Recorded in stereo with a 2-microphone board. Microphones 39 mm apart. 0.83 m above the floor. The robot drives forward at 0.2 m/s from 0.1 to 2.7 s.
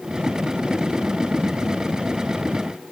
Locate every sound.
Only background noise.